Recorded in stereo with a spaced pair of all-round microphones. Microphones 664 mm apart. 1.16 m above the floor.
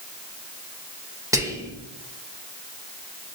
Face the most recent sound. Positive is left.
turn(degrees=-5)  # may be behind; listen again after turning